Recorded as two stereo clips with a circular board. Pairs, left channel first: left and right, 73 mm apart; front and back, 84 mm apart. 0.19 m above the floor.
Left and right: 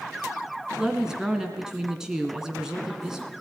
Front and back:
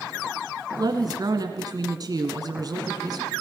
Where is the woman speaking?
170° right, 2 m.